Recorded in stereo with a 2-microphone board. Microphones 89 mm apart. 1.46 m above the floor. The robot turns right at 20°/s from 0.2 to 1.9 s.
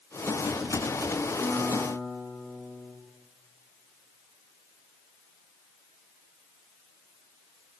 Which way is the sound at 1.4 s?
15° left (ahead or behind).